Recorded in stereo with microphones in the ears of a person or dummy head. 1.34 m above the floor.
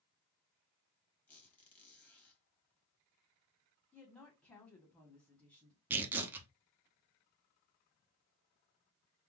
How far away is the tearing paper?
About 0.5 m.